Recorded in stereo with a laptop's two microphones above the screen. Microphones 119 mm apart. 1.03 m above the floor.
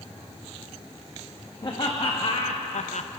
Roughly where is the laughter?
Left.